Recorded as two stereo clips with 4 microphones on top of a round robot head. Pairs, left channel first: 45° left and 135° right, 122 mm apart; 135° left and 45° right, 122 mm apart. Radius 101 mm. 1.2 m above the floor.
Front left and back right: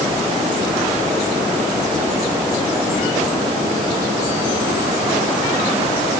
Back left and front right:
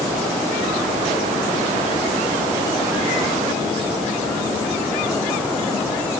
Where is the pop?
I don't hear a pop.